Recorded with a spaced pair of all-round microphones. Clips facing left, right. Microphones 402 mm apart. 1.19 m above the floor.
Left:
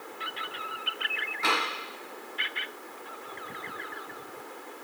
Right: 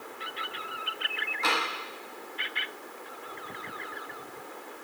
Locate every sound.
1.4 s tapping: 40° left (ahead or behind), 3.5 m